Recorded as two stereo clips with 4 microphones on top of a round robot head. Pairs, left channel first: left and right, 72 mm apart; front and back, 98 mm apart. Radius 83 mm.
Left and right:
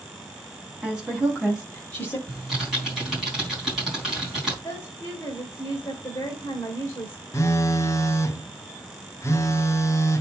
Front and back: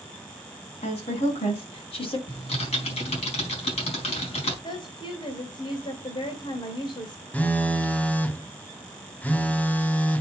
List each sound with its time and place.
0.8 s a woman speaking: 10° right, 3.5 m; by 2.2 s 25° left, 2.5 m
2.3 s typing on a keyboard: 5° right, 4.5 m
4.6 s a woman speaking: 30° left, 2.5 m
7.3 s a phone buzzing: 65° left, 1.2 m